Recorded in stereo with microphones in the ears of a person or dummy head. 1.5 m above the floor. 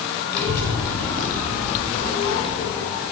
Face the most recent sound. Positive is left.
turn(degrees=20)  # may be behind; listen again after turning